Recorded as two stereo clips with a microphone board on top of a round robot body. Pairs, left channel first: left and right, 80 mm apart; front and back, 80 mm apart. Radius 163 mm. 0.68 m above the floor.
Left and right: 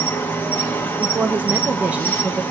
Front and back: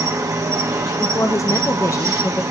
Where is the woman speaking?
25° right, 0.7 m.